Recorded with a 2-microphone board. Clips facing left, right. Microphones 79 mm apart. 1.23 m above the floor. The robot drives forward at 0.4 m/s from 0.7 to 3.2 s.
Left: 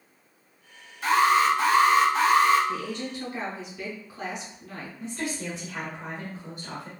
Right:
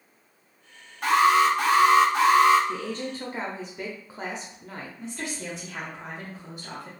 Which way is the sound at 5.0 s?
Centre (ahead or behind).